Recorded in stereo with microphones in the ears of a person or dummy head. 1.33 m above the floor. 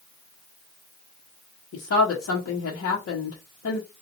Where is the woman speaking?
65° left (ahead or behind), 1.0 m.